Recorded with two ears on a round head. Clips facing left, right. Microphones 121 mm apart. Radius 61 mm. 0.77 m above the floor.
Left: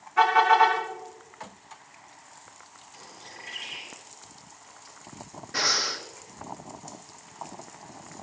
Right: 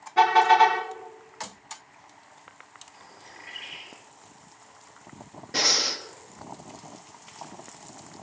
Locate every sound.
0.2 s a car horn: 40° right (ahead or behind), 4 m
2.9 s a bird: 35° left (ahead or behind), 7.5 m
5.5 s breathing: 30° right (ahead or behind), 1.3 m